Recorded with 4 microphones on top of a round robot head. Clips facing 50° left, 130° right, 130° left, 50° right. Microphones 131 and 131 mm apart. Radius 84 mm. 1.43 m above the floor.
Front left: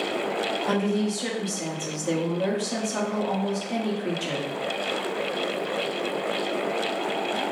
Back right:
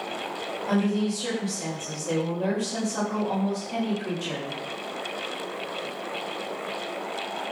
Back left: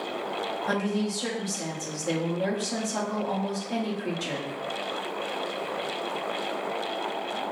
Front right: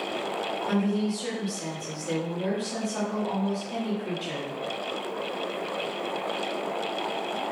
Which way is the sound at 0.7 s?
85° left.